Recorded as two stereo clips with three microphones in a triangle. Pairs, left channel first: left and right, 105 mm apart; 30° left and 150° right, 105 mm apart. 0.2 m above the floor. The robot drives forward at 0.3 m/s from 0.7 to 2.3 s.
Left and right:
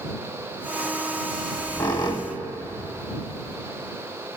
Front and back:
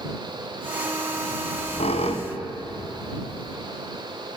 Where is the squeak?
35° left, 1.1 m; by 3.6 s 45° left, 0.9 m.